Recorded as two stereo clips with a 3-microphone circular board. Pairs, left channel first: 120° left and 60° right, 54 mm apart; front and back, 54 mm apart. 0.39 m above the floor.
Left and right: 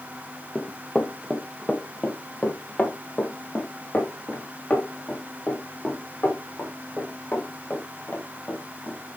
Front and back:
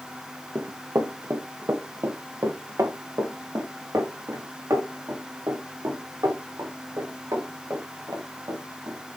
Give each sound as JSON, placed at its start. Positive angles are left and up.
{"t": 0.6, "sound": "running footsteps", "azimuth_deg": -155, "distance_m": 1.4}